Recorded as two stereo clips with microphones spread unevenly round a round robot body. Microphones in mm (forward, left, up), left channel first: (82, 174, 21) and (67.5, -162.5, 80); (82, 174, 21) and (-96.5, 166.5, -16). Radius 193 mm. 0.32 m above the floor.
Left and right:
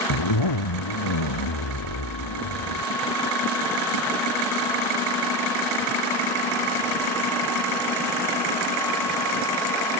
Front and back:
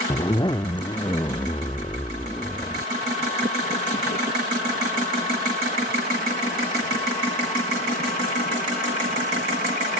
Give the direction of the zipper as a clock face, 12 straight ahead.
10 o'clock.